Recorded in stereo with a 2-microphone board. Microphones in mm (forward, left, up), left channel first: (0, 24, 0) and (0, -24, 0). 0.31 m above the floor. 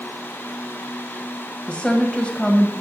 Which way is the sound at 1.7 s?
25° left (ahead or behind).